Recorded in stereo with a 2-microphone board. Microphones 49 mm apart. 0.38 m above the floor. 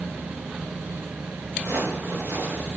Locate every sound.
1.6 s footsteps: 80° right, 5 m; by 2.7 s 70° right (ahead or behind), 5 m